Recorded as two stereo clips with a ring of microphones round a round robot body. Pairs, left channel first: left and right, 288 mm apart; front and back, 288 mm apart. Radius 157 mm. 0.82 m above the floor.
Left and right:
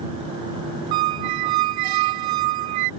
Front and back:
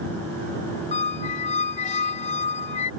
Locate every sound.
0.9 s a squeak: 70° right